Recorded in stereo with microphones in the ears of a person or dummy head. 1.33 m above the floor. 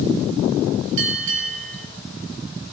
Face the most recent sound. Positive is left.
turn(degrees=-70)  # may be behind; listen again after turning